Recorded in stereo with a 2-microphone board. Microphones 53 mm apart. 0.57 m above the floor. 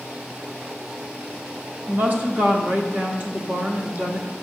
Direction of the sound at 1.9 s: 40° right (ahead or behind).